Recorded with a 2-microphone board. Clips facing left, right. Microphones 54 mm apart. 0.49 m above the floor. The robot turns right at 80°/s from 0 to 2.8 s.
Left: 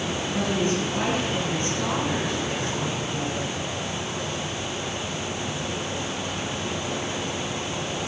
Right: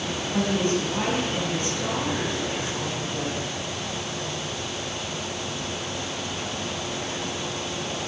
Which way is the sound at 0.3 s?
70° right.